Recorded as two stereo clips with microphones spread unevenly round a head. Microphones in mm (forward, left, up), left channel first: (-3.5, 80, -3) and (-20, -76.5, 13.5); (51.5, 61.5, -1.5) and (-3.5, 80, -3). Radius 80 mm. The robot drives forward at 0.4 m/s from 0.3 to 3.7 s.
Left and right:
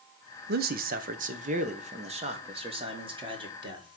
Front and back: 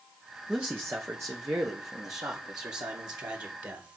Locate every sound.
0.5 s a man speaking: 120° right, 0.8 m; by 4.0 s 160° right, 1.8 m